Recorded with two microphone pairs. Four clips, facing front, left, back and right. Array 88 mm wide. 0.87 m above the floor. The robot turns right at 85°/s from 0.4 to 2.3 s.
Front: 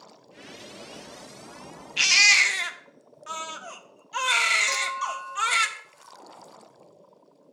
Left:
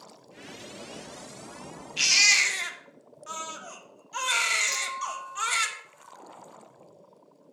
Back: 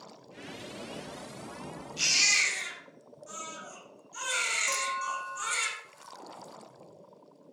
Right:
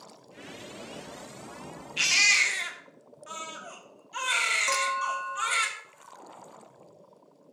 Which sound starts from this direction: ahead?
A baby crying, at 2.0 s.